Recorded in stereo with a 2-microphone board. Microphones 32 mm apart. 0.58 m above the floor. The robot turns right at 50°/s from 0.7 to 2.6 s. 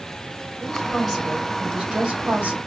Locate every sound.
0.6 s a woman speaking: 175° left, 2 m; by 2.6 s 95° right, 2 m